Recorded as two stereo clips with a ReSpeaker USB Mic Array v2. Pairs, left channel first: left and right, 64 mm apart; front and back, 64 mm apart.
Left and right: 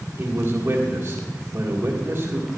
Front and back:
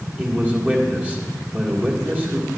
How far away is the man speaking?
About 1.8 m.